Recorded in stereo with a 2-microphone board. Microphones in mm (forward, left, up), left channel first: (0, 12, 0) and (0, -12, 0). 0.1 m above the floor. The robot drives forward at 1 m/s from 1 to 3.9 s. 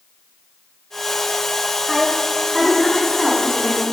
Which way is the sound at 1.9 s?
5° right (ahead or behind).